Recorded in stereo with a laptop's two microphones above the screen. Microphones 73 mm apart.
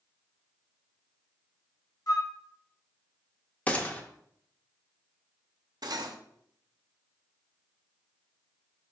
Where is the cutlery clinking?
65° right (ahead or behind), 0.5 m.